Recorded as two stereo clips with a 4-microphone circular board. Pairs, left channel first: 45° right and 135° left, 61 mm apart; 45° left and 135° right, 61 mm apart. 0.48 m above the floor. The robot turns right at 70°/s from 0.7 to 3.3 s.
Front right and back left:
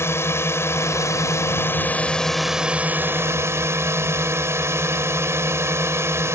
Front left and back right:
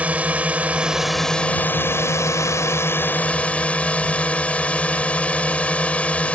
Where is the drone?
75° right; by 6.3 s 110° left.